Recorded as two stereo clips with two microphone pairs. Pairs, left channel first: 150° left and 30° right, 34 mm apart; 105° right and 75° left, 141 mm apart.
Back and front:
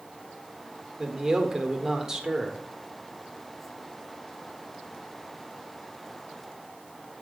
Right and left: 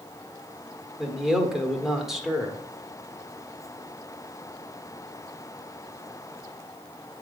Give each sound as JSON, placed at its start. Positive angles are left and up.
{"t": 1.0, "sound": "a man speaking", "azimuth_deg": -5, "distance_m": 1.3}